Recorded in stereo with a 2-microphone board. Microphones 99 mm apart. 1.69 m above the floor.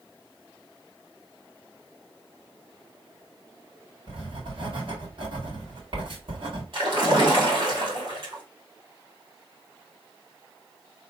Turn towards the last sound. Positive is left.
turn(degrees=-55)  # may be behind; listen again after turning